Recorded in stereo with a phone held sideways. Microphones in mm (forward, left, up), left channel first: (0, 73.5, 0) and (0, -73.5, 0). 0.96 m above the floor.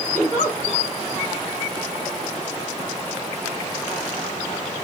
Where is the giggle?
15° left (ahead or behind), 2.5 m.